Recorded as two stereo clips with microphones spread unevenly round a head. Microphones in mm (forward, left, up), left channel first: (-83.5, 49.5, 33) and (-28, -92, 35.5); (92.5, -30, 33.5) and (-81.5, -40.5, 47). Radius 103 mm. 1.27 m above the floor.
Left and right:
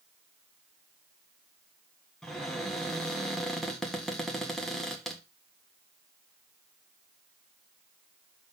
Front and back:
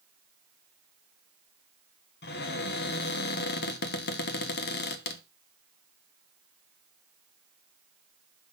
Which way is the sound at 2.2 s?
25° left.